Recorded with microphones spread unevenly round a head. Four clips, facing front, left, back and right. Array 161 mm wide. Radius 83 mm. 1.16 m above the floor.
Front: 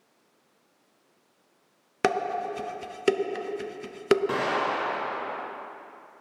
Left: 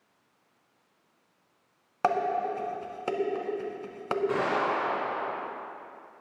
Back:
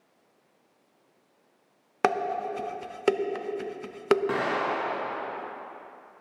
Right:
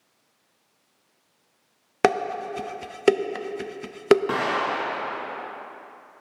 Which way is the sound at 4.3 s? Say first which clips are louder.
Right 2 dB, front 1 dB; 120° right.